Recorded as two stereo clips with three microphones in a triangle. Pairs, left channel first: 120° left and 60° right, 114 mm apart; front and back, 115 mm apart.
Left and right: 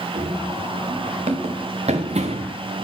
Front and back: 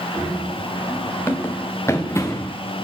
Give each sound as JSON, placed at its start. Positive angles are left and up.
{"t": 0.1, "sound": "running footsteps", "azimuth_deg": -70, "distance_m": 3.0}